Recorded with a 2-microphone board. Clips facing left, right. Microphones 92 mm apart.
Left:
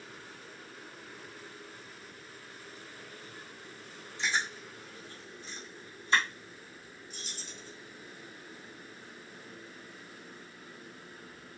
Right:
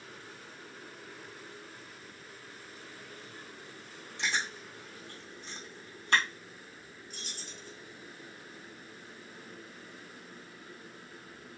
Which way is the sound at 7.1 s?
50° right (ahead or behind).